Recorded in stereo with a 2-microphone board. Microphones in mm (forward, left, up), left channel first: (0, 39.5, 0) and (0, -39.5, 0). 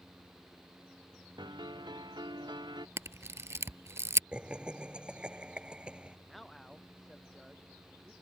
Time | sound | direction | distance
1.4 | a piano | 70° right (ahead or behind) | ?
3.0 | a camera shutter | 40° right (ahead or behind) | ?
4.3 | laughter | 15° right (ahead or behind) | ?
6.3 | a man speaking | centre (ahead or behind) | ?